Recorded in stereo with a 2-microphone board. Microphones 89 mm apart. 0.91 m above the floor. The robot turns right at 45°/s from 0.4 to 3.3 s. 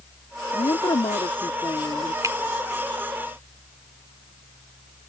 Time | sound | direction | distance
0.5 | a woman speaking | 75° left | ?
2.2 | a finger snap | 40° right (ahead or behind) | ?